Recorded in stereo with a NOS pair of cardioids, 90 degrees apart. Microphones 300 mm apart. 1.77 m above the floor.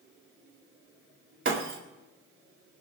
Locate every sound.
1.4 s breaking glass: 40° right, 3 m